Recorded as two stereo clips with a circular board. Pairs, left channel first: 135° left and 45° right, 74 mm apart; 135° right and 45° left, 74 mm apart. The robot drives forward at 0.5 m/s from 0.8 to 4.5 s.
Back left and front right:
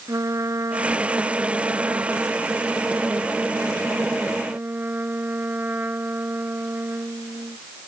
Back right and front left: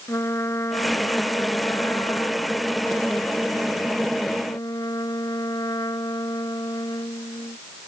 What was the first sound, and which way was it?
A trumpet, 90° right.